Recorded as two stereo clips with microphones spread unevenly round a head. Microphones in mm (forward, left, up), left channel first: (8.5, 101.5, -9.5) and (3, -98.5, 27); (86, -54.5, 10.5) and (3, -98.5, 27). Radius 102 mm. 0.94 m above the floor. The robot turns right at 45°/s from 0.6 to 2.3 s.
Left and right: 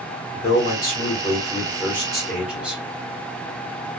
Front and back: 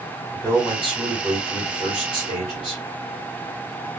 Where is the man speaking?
100° left, 1.4 m; by 2.8 s straight behind, 1.4 m.